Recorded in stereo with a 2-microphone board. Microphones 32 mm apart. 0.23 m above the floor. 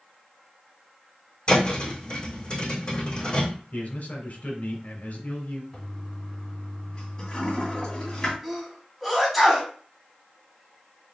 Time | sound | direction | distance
1.5 | a thud | 35° left (ahead or behind) | 3 m
3.7 | a man speaking | 60° left (ahead or behind) | 1.9 m
5.7 | a toilet flushing | 25° left (ahead or behind) | 1.9 m
8.4 | a sneeze | centre (ahead or behind) | 2 m